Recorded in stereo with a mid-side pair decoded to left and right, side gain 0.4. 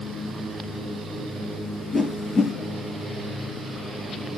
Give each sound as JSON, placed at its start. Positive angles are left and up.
{"t": 1.9, "sound": "a whoosh", "azimuth_deg": 25, "distance_m": 5.0}